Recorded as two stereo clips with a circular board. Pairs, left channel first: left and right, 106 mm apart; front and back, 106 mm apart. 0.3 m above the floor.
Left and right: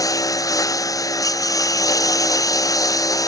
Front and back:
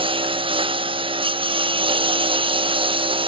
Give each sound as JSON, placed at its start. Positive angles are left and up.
{"t": 0.0, "sound": "a lawn mower", "azimuth_deg": 145}